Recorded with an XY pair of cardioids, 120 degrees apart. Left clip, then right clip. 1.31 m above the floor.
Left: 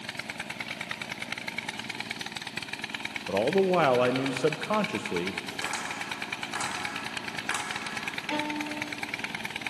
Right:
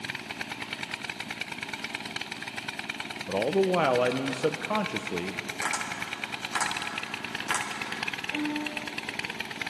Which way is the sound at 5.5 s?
25° right.